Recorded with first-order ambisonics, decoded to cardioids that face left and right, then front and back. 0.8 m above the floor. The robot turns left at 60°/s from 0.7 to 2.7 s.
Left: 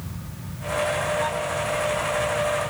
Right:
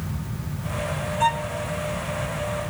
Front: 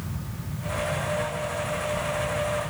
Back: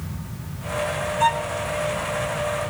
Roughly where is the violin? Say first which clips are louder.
Right 3 dB, back 9 dB; behind right.